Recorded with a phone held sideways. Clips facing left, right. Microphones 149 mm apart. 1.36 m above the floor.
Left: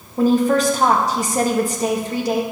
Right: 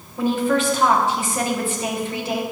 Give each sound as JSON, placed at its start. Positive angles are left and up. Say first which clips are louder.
{"t": 0.2, "sound": "a woman speaking", "louder": "left 4 dB", "side_deg": 40, "distance_m": 1.1}